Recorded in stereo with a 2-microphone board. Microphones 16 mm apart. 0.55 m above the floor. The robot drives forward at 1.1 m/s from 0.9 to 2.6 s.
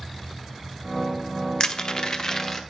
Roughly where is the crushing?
Left.